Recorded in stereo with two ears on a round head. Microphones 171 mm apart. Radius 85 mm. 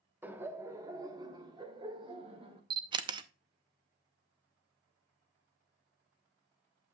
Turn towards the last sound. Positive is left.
turn(degrees=-25)  # may be behind; listen again after turning